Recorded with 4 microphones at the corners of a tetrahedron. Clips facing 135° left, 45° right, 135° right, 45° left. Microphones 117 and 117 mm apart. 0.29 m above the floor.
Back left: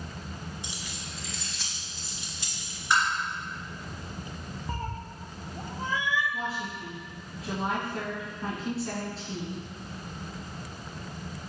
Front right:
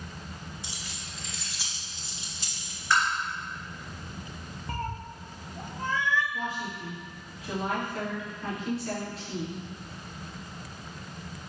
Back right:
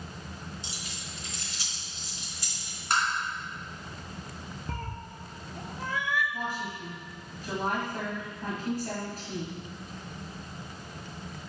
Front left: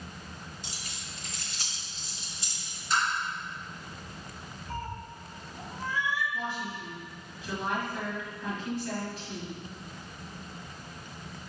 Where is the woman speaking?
175° right, 2.5 m.